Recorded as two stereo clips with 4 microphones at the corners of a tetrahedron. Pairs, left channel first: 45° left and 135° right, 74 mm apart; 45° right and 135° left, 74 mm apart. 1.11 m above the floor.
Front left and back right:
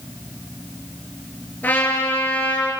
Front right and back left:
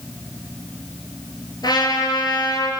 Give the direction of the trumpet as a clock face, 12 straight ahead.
1 o'clock.